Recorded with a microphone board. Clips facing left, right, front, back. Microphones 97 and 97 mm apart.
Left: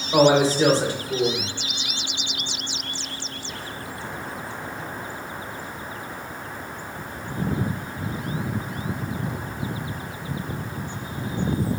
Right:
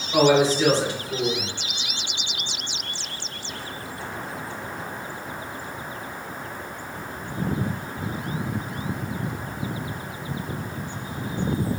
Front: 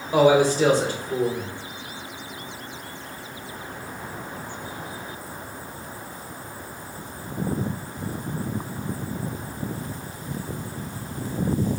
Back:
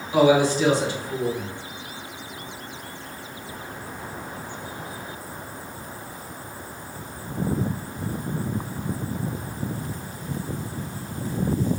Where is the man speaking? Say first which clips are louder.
Left 1 dB, front 1 dB; 40° left, 1.4 m.